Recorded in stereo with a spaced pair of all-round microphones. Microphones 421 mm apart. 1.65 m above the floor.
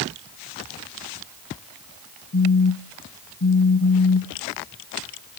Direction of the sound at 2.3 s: 35° left (ahead or behind).